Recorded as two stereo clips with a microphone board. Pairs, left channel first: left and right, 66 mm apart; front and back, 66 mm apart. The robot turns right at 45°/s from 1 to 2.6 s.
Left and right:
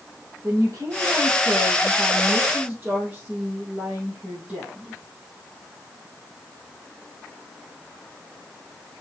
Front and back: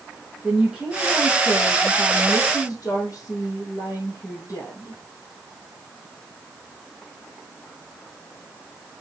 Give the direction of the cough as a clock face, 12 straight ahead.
I don't hear a cough.